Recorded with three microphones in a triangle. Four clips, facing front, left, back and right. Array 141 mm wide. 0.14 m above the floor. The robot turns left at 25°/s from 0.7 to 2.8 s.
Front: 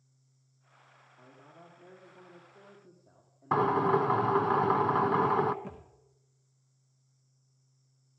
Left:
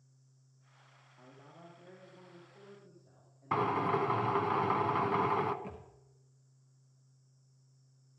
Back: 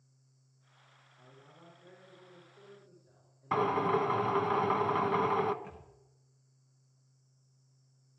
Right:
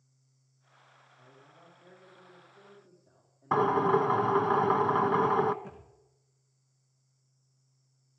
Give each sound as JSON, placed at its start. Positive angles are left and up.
{"t": 1.2, "sound": "a man speaking", "azimuth_deg": 50, "distance_m": 5.5}
{"t": 3.5, "sound": "a drill", "azimuth_deg": -50, "distance_m": 0.7}
{"t": 5.6, "sound": "a thud", "azimuth_deg": 15, "distance_m": 2.5}